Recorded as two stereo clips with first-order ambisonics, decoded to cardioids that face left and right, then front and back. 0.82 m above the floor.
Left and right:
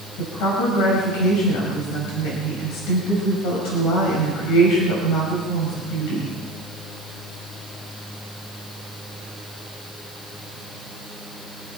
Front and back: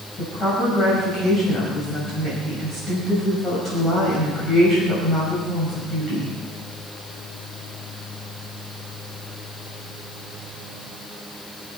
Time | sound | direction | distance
0.2 | a woman speaking | 70° left | 5.5 m